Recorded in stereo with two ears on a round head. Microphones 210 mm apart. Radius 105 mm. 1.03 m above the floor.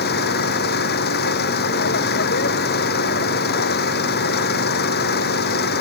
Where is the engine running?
45° left (ahead or behind).